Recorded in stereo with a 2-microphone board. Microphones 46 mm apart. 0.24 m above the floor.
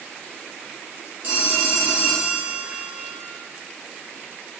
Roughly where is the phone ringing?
Right.